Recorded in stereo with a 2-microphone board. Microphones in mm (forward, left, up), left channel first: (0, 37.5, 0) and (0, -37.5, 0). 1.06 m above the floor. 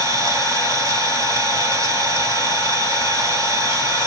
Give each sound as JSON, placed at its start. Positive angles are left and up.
{"t": 0.0, "sound": "an engine running", "side_deg": -50, "distance_m": 2.0}